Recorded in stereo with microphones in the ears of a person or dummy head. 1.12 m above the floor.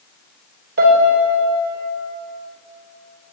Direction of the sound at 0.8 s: 55° right (ahead or behind).